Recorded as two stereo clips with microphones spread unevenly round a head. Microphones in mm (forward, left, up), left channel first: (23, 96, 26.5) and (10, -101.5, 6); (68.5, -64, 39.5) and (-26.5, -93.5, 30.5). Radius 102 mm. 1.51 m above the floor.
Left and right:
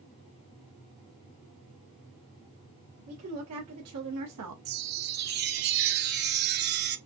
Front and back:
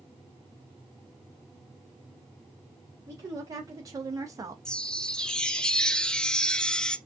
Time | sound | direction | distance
3.1 | a woman speaking | 105° right | 1.9 m
4.7 | a chime | 60° right | 0.7 m